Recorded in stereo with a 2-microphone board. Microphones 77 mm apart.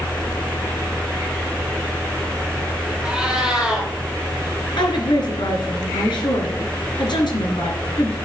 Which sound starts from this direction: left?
A woman speaking, at 4.8 s.